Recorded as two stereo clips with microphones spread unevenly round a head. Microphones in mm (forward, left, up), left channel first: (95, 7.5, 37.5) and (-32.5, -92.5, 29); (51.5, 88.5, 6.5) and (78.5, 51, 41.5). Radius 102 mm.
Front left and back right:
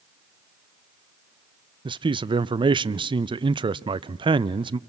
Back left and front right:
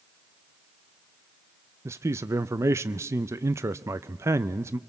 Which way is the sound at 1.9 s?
125° right.